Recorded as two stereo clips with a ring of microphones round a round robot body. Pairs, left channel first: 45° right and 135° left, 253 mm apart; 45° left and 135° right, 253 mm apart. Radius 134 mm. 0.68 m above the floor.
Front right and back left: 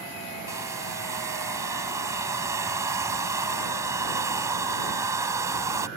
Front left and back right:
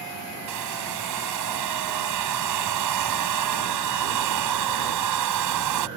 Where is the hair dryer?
145° right.